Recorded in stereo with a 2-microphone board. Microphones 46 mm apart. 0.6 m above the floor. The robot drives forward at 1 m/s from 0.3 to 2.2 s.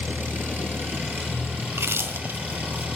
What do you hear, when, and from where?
0.0 s an engine running: 50° right (ahead or behind), 4.5 m; by 3.0 s 35° right (ahead or behind), 6 m
1.7 s chewing: 80° right, 1.0 m; by 2.9 s 55° right (ahead or behind), 1.2 m